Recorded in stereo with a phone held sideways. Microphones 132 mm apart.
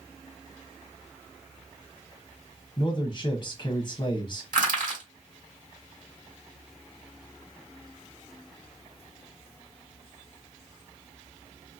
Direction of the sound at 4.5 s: 75° right (ahead or behind).